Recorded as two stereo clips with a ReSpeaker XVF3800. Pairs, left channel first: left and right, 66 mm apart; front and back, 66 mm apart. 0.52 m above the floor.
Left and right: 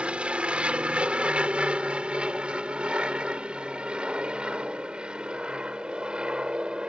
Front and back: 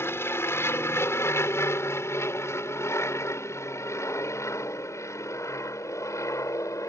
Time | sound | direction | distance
0.0 | an aircraft | 25° right | ?